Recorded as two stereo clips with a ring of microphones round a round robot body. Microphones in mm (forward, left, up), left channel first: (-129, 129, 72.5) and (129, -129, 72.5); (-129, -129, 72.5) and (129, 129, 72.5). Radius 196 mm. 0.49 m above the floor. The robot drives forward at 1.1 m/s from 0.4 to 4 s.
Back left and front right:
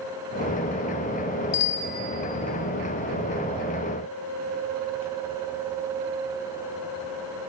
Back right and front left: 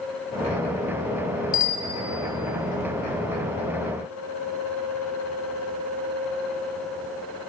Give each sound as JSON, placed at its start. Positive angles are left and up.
{"t": 1.5, "sound": "a bicycle bell", "azimuth_deg": 155, "distance_m": 2.5}